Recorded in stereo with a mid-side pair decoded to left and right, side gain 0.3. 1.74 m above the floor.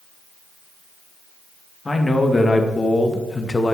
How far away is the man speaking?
About 2.5 m.